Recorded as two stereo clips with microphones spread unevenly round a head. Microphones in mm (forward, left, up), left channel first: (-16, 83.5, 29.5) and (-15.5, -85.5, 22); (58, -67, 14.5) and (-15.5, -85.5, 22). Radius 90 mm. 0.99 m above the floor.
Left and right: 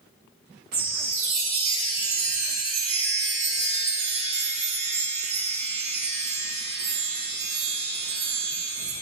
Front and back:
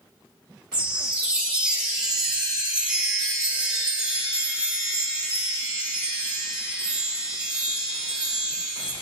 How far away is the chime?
About 2 m.